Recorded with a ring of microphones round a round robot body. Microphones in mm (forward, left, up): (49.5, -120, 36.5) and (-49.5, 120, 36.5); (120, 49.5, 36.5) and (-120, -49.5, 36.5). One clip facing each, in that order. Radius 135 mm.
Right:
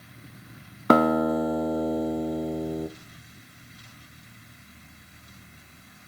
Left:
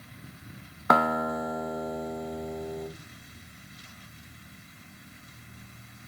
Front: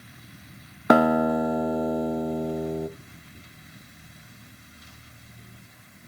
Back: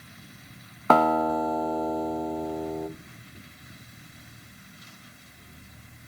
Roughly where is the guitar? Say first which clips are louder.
Right 8 dB, front 4 dB; ahead right.